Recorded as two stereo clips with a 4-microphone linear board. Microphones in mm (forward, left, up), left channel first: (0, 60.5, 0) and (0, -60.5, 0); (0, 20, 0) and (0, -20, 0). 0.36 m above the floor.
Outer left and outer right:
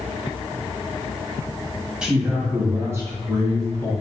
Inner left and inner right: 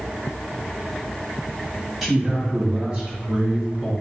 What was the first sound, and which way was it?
A man speaking, 5° right (ahead or behind).